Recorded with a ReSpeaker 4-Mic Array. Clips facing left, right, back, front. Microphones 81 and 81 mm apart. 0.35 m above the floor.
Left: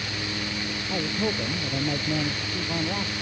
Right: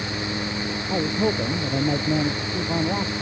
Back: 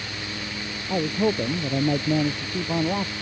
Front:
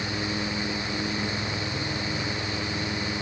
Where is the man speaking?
160° right.